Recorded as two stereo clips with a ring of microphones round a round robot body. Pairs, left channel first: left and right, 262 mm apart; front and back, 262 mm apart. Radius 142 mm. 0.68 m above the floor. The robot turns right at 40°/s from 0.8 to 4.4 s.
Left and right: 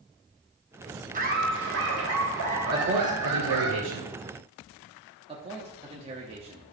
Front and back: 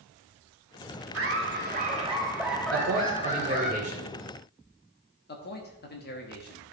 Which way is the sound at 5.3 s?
30° right.